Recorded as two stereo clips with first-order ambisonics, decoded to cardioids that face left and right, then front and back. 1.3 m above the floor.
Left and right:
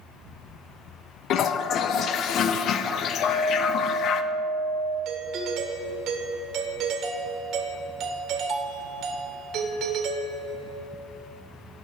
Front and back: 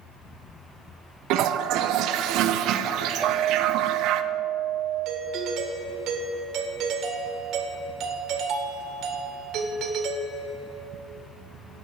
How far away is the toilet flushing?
About 0.6 m.